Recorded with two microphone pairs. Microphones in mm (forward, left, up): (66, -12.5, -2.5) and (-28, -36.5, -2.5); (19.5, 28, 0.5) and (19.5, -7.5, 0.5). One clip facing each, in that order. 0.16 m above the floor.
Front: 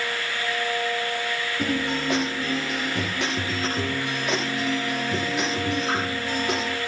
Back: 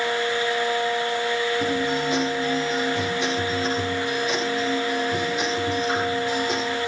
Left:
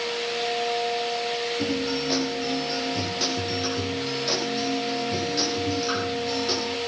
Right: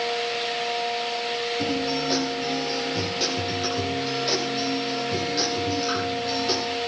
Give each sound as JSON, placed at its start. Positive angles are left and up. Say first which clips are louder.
{"t": 1.6, "sound": "a guitar", "louder": "back 3 dB, right 1 dB", "azimuth_deg": -5, "distance_m": 10.0}